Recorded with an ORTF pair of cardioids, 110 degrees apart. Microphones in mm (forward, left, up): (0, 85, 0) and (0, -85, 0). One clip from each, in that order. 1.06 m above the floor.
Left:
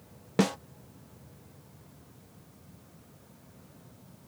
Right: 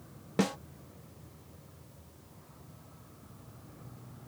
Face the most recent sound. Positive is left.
turn(degrees=20)